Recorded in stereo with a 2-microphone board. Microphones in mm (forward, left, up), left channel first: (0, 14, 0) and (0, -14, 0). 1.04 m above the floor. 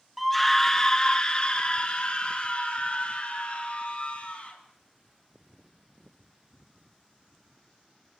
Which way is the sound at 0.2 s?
Centre (ahead or behind).